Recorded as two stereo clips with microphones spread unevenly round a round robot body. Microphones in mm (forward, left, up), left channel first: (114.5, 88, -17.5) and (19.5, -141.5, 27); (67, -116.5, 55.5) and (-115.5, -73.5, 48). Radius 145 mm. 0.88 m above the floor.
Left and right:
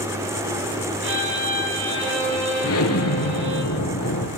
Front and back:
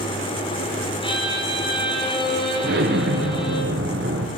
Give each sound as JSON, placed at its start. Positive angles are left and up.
{"t": 1.0, "sound": "a violin", "azimuth_deg": -75, "distance_m": 9.5}
{"t": 2.6, "sound": "an explosion", "azimuth_deg": 115, "distance_m": 4.5}